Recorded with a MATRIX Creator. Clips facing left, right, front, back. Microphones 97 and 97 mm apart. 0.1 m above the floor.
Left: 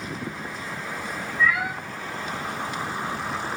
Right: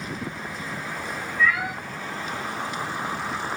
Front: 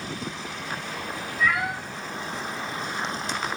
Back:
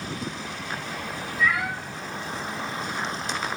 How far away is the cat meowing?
About 1.0 m.